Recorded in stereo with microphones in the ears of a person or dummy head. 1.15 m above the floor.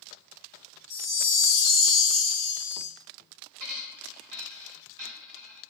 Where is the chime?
35° left (ahead or behind), 0.5 m.